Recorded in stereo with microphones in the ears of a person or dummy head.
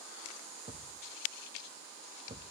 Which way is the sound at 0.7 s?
25° right (ahead or behind).